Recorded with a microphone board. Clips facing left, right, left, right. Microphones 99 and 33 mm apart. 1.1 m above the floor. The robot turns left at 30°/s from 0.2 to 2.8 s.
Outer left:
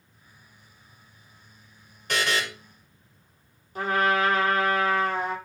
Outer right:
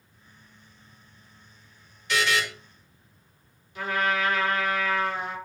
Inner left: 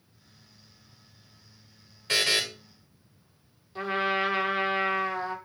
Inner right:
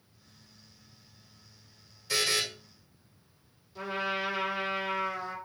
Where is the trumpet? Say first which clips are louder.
Outer left 3 dB, inner left 5 dB; 40° left (ahead or behind), 0.9 m.